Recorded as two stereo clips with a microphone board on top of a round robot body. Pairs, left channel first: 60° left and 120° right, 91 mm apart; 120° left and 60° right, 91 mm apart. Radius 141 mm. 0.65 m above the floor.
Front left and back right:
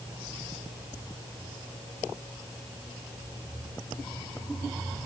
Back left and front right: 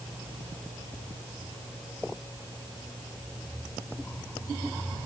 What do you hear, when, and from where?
Only background noise.